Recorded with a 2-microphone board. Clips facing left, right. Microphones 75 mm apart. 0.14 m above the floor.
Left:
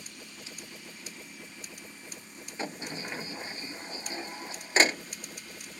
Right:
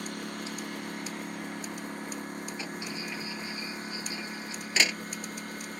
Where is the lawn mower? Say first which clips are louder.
Right 11 dB; 60° right (ahead or behind); by 5.8 s 50° right (ahead or behind).